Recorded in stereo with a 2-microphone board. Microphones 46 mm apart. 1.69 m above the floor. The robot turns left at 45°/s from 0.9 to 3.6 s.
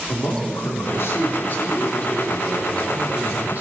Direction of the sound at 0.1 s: 80° left.